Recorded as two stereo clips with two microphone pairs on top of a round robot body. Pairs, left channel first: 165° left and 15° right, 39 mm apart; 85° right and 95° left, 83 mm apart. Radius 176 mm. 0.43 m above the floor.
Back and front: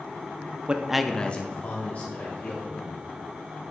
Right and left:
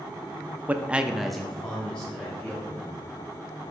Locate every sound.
0.7 s a man speaking: 30° left, 0.8 m; by 3.0 s 160° right, 2.5 m